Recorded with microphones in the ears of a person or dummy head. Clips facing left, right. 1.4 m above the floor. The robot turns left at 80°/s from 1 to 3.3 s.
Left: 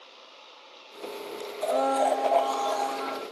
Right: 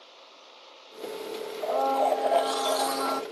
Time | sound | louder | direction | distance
1.6 | a blender | left 1 dB | 45° left | 0.5 m